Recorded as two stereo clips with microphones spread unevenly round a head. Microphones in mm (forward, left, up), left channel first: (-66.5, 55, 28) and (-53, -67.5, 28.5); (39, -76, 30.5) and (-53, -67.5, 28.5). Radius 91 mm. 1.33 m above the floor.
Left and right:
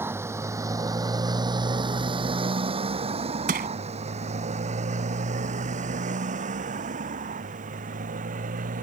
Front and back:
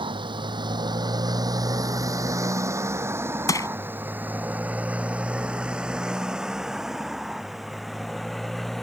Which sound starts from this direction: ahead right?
Crushing, at 3.5 s.